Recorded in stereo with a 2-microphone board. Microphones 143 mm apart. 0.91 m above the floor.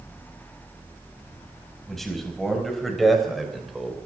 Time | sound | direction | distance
1.9 | a man speaking | centre (ahead or behind) | 5.5 m